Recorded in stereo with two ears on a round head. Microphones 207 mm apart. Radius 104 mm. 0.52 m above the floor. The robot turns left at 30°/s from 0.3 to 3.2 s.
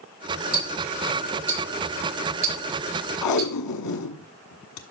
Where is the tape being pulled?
80° left, 1.3 m.